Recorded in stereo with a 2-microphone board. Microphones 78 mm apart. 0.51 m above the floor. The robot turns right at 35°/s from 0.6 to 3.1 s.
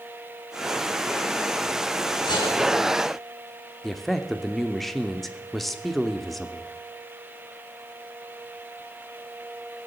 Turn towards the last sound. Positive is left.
turn(degrees=0)  # may be behind; listen again after turning